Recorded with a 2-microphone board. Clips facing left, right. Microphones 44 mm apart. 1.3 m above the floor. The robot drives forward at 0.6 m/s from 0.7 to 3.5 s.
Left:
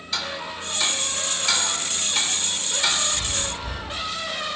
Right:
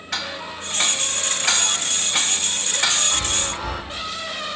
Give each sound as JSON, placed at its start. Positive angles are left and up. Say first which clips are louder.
{"t": 0.1, "sound": "ticking", "louder": "right 1 dB", "side_deg": -70, "distance_m": 1.7}
{"t": 3.1, "sound": "a chime", "louder": "right 4 dB", "side_deg": -70, "distance_m": 1.0}